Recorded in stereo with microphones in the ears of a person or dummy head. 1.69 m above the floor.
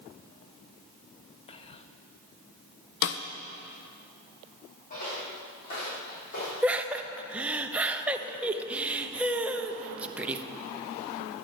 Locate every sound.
1.5 s whispering: 30° left (ahead or behind), 0.9 m
3.0 s a snare drum: 65° left (ahead or behind), 0.8 m
4.9 s footsteps: 50° left (ahead or behind), 6 m
6.6 s laughter: 5° right (ahead or behind), 0.9 m